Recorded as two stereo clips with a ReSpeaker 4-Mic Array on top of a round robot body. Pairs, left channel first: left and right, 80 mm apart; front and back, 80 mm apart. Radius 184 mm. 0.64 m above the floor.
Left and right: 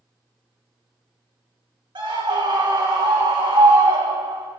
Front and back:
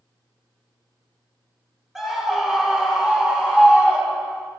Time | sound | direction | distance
1.9 | a scream | 95° right | 4 m